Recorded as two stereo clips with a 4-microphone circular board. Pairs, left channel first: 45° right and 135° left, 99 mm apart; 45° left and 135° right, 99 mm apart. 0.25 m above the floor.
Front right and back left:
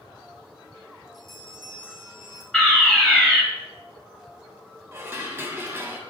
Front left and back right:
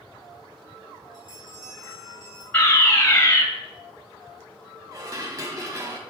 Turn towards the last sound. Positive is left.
turn(degrees=-170)